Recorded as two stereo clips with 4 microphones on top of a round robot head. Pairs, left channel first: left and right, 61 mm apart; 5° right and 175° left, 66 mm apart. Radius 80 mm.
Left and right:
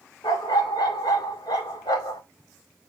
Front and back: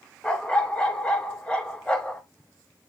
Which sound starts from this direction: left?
A dog barking, at 0.2 s.